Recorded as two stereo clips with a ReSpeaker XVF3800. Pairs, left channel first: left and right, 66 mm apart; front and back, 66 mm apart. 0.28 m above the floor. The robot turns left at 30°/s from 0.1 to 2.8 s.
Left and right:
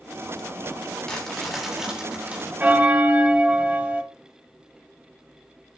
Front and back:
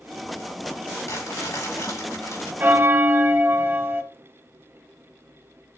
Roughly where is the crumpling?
Ahead.